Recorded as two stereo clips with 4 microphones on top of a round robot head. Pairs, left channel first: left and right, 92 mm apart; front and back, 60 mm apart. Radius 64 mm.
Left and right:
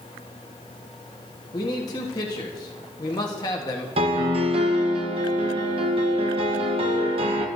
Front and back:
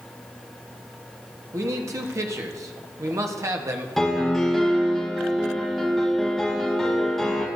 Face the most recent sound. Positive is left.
turn(degrees=-85)